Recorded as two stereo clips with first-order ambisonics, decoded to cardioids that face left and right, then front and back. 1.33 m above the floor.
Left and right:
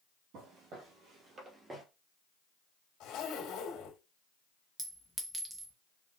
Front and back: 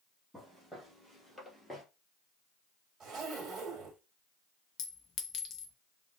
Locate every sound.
0.3 s footsteps: 90° right, 2 m; by 1.9 s 45° right, 1.3 m
3.0 s a zipper: 115° left, 1.7 m
4.8 s a clink: 20° right, 0.6 m